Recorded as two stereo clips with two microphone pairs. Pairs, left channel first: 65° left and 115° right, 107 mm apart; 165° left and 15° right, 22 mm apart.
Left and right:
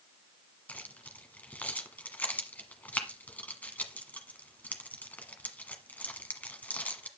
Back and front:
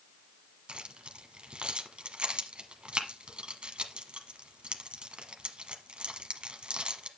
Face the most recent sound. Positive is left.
turn(degrees=-10)